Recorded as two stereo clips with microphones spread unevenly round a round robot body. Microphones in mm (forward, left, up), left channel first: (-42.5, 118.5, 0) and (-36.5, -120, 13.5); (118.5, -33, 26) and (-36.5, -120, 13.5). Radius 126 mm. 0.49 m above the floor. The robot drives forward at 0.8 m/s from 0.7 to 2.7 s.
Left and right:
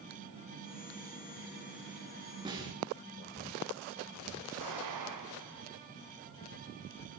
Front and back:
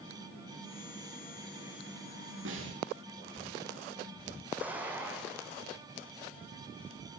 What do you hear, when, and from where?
2.5 s a snare drum: 160° right, 7.5 m
4.6 s an explosion: 70° right, 6.5 m